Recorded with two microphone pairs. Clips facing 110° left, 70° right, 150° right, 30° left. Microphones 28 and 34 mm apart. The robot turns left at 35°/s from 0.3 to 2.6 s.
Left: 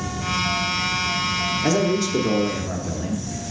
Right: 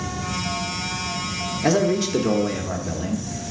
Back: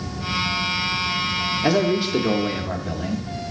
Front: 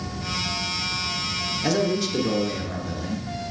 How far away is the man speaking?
About 0.8 m.